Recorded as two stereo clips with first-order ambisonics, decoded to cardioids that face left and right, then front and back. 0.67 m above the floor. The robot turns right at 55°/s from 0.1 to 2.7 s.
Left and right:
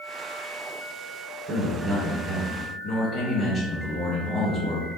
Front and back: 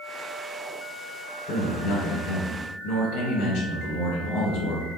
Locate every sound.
1.5 s a man speaking: 45° right, 2.5 m; by 4.9 s 25° left, 2.5 m